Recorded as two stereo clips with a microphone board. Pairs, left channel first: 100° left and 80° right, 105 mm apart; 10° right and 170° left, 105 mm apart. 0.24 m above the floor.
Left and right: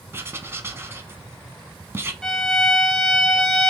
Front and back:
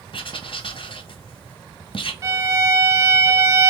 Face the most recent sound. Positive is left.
turn(degrees=180)